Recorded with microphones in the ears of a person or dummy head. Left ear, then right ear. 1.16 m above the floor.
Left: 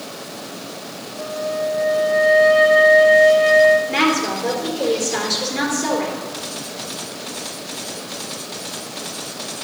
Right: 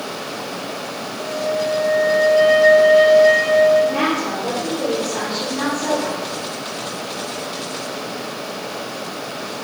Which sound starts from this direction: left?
A woman speaking, at 3.9 s.